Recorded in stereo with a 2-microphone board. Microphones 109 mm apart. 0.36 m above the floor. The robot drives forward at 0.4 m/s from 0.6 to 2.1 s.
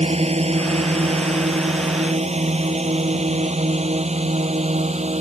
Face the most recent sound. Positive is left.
turn(degrees=-85)